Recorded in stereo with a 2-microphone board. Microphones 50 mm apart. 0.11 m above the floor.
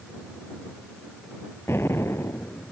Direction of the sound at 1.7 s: 55° left (ahead or behind).